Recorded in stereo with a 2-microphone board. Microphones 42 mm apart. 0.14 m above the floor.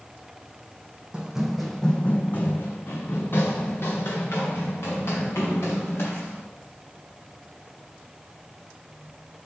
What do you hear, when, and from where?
1.1 s running footsteps: 25° right (ahead or behind), 0.5 m; by 6.4 s 80° left, 2.5 m